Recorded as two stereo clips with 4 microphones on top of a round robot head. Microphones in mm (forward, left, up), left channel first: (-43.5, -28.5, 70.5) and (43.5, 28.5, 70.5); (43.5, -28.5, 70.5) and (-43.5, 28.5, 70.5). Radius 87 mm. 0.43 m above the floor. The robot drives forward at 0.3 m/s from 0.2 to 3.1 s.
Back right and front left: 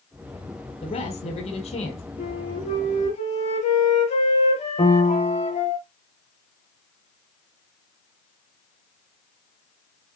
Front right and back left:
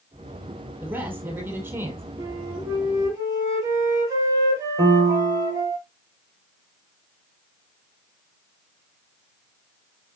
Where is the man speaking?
145° right, 4 m; by 2.0 s 150° right, 4.5 m.